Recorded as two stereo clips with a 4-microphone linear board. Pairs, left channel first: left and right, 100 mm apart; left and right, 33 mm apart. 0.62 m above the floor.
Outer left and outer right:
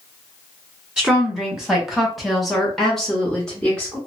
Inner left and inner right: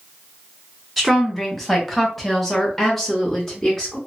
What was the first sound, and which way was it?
A woman speaking, 5° right (ahead or behind).